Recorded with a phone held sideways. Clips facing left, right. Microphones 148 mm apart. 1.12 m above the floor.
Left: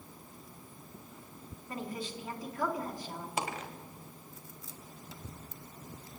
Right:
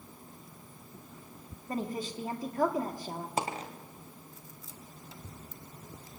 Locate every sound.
1.7 s a woman speaking: 40° right (ahead or behind), 2 m
3.4 s a dropped coin: 35° right (ahead or behind), 2 m